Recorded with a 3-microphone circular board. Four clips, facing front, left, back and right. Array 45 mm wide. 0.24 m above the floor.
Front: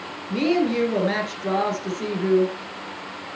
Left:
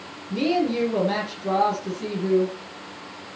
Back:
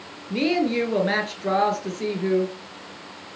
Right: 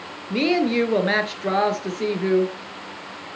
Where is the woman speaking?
105° right, 3.5 m.